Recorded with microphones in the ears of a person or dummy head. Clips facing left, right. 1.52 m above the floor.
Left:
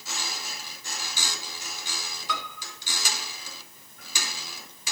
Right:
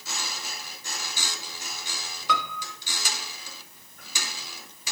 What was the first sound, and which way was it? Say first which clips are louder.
A piano: right 6 dB; 60° right (ahead or behind).